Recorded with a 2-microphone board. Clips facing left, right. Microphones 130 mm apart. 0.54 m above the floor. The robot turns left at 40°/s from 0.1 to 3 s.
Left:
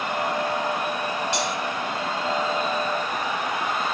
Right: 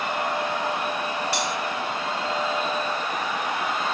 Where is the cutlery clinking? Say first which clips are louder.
Left 1 dB; 20° left (ahead or behind), 1.4 m; by 1.5 s 25° left (ahead or behind), 1.4 m.